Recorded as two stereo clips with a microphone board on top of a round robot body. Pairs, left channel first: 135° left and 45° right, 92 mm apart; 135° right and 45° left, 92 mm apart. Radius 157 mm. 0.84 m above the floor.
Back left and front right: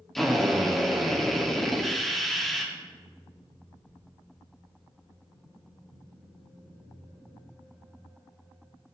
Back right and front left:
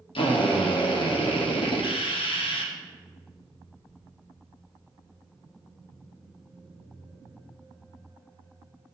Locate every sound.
0.1 s a drill: 135° right, 2 m